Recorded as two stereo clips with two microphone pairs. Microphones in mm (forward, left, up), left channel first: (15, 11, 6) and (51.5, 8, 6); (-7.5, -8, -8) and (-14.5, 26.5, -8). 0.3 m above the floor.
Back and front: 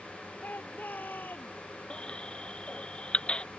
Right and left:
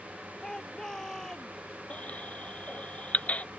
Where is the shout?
155° right.